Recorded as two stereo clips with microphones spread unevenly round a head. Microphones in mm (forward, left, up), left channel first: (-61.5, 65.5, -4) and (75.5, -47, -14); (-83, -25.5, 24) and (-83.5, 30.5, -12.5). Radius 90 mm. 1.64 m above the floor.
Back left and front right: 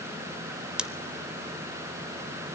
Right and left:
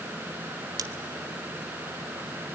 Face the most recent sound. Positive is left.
turn(degrees=50)